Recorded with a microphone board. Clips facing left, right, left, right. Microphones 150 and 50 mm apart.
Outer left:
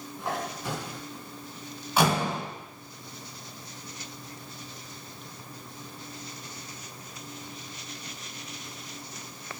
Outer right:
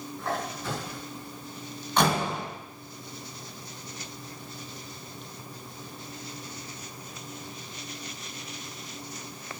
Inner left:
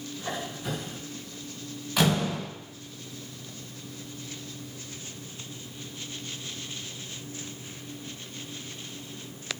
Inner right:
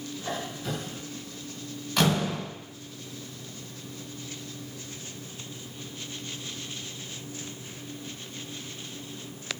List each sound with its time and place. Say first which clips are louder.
0.2 s a squeak: even, even; 15° left (ahead or behind), 9 m
2.0 s a door slam: even, even; 5° left (ahead or behind), 7.5 m